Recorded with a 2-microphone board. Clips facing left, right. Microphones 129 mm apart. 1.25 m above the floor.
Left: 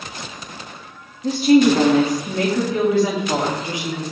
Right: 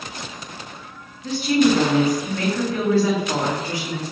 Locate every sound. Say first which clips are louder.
1.2 s a woman speaking: left 4 dB; 35° left (ahead or behind), 1.1 m; by 4.1 s 15° left (ahead or behind), 2.5 m